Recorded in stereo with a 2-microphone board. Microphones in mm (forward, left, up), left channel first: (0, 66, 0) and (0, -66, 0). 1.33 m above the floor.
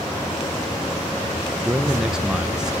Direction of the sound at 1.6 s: 5° right (ahead or behind).